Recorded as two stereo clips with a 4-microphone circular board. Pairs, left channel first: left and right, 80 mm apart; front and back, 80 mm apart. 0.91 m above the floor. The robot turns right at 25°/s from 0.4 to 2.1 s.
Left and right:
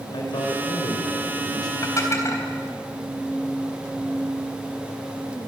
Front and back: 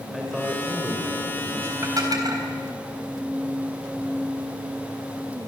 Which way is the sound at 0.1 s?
90° left.